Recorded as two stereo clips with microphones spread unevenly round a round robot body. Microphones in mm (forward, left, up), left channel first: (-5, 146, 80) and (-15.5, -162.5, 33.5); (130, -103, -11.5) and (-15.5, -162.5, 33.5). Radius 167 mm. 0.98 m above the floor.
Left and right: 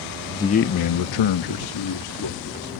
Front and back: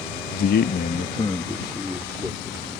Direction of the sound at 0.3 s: Straight ahead.